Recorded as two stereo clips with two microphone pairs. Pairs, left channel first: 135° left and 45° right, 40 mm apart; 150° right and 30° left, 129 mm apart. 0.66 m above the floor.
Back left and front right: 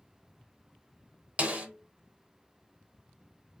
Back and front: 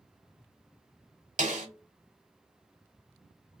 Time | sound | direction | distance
1.4 | a snare drum | 10° left | 0.8 m